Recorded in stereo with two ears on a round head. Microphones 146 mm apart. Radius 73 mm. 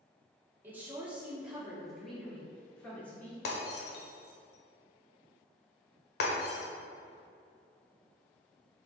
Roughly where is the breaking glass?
Left.